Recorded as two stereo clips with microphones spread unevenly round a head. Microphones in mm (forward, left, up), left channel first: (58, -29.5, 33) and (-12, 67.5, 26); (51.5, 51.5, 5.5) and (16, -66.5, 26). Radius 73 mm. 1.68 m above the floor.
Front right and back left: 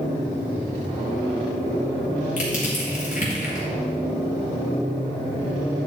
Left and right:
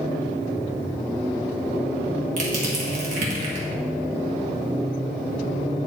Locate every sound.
2.4 s crushing: 95° right, 1.7 m